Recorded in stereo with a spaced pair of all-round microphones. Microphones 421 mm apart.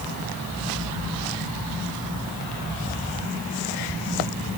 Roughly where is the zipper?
I don't hear a zipper.